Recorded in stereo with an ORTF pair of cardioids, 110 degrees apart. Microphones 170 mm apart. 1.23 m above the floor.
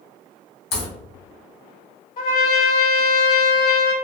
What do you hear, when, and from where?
0.7 s a crack: 65° left, 1.8 m
2.2 s a trumpet: 60° left, 1.1 m